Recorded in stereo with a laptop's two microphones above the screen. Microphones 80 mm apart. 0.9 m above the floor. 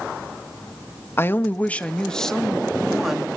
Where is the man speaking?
30° left (ahead or behind), 1.2 m; by 3.3 s 5° right (ahead or behind), 1.9 m.